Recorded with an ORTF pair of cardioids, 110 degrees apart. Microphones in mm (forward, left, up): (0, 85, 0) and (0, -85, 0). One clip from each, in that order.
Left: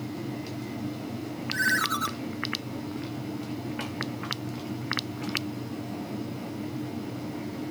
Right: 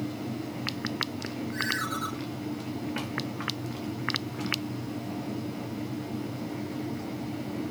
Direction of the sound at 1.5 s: 40° left.